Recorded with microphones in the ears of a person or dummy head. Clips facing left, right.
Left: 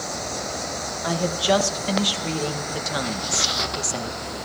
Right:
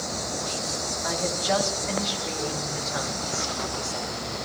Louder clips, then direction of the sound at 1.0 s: Left 6 dB; 45° left (ahead or behind).